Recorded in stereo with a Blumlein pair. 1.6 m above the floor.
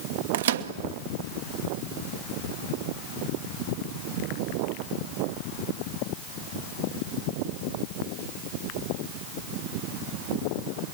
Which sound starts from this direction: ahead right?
A microwave, at 0.3 s.